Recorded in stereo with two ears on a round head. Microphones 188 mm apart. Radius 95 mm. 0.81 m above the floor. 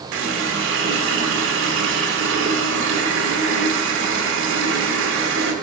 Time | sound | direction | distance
0.1 | a running tap | 65° right (ahead or behind) | 1.5 m